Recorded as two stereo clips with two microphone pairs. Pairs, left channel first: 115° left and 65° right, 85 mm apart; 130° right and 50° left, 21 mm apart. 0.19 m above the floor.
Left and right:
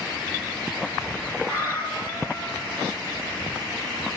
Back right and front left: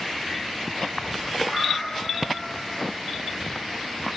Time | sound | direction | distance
1.4 | a cat meowing | 170° right | 7.5 m